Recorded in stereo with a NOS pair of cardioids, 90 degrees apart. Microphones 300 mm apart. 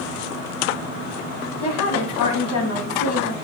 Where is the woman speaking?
70° left, 1.0 m.